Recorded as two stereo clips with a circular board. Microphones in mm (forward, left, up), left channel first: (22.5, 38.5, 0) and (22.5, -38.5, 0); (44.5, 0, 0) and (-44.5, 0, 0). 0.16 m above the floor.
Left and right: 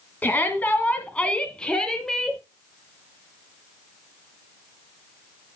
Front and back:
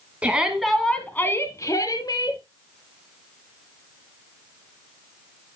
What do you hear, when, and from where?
0.2 s a shout: 125° left, 1.7 m; by 2.4 s 5° left, 2.5 m